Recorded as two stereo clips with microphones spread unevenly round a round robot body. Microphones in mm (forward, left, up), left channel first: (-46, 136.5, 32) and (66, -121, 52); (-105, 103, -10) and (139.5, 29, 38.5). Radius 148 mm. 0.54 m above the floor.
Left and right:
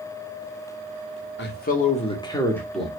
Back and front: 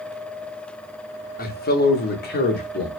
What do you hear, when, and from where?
1.4 s a man speaking: 140° left, 1.2 m; by 2.9 s 160° right, 1.3 m